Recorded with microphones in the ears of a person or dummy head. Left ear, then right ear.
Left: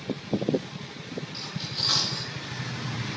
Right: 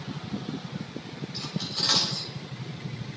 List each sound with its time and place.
1.3 s cutlery clinking: 20° right (ahead or behind), 4 m